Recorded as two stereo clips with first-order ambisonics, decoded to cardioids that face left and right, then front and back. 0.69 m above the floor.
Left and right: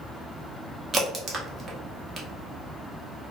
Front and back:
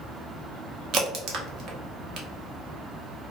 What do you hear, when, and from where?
0.9 s a crack: 155° right, 0.6 m